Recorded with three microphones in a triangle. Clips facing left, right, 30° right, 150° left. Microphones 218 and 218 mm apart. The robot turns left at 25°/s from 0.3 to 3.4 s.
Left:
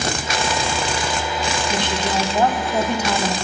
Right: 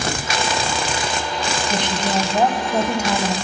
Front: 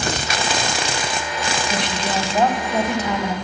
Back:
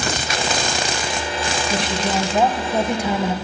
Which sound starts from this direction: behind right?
A woman speaking, at 1.7 s.